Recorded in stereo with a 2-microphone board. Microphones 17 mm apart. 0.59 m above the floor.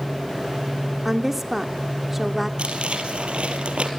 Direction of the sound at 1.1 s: 10° right (ahead or behind).